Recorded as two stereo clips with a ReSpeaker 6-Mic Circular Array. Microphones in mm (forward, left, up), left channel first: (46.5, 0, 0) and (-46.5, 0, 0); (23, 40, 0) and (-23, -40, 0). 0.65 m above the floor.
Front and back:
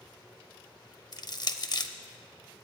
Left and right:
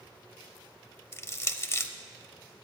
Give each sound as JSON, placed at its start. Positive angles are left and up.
{"t": 1.1, "sound": "crushing", "azimuth_deg": 10, "distance_m": 0.5}